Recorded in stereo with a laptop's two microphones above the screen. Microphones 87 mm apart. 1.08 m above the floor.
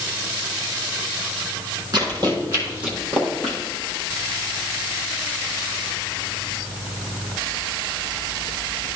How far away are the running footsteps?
About 2.5 m.